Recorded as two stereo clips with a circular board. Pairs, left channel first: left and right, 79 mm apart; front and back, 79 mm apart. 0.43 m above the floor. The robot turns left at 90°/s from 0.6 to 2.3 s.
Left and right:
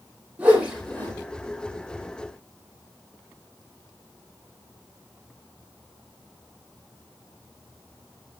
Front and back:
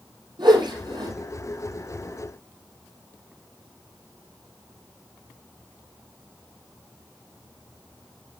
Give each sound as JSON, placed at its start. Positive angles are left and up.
{"t": 0.4, "sound": "a whoosh", "azimuth_deg": -160, "distance_m": 5.5}